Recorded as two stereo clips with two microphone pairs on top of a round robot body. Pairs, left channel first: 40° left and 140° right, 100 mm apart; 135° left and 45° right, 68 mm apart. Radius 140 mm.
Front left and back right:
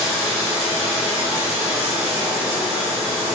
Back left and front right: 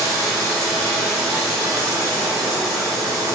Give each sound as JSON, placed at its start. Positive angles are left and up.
{"t": 0.0, "sound": "running water", "azimuth_deg": -65, "distance_m": 0.8}